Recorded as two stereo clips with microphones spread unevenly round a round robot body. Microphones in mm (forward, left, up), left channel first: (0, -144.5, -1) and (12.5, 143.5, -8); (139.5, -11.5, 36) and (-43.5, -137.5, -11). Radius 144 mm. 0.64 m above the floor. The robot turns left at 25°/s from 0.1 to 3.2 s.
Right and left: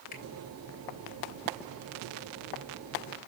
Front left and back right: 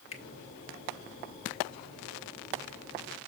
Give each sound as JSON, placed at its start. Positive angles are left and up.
{"t": 0.1, "sound": "a finger snap", "azimuth_deg": -30, "distance_m": 3.0}